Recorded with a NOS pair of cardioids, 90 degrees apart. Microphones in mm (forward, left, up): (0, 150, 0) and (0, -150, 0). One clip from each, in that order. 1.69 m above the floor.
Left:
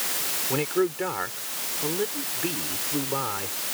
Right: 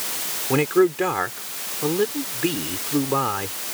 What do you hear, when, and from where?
0.5 s a man speaking: 45° right